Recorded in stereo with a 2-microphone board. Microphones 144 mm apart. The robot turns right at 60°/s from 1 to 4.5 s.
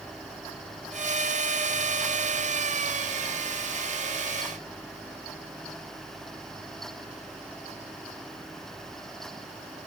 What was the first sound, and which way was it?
Only background noise.